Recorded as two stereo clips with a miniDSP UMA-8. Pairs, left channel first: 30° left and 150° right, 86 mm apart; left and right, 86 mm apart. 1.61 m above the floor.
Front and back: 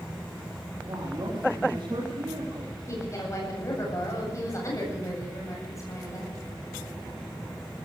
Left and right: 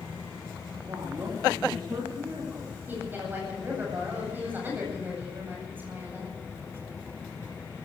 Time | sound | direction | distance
0.9 | a woman speaking | 140° right | 4 m
2.9 | a woman speaking | 25° right | 8 m